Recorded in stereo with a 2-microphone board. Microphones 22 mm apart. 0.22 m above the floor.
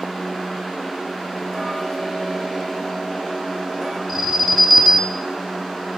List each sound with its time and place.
1.5 s ticking: 10° right (ahead or behind), 3.5 m
4.1 s an alarm: 15° right (ahead or behind), 2 m